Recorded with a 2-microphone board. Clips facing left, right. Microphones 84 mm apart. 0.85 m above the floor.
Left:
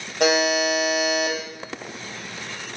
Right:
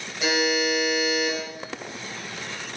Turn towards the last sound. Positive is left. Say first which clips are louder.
# left 4 dB
turn(degrees=65)  # may be behind; listen again after turning